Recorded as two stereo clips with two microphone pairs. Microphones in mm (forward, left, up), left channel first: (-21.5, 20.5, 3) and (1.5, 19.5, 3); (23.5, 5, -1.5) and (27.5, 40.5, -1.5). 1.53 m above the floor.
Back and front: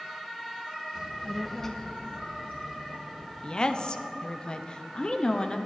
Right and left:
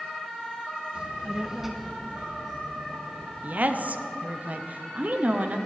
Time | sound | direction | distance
0.9 | a child speaking | 40° left | 0.8 m
3.4 | a woman speaking | 125° left | 0.7 m